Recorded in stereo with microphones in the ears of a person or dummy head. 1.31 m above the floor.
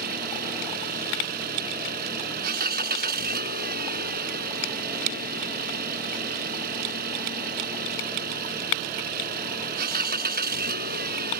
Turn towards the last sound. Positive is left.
turn(degrees=-50)  # may be behind; listen again after turning